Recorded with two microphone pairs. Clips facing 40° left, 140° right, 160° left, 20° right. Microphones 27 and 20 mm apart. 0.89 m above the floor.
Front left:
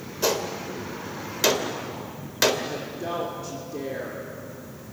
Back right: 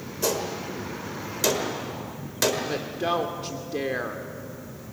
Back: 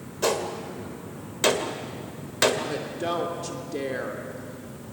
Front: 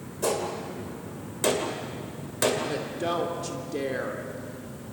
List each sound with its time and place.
0.2 s a gunshot: 110° left, 1.9 m
2.7 s a woman speaking: 115° right, 2.5 m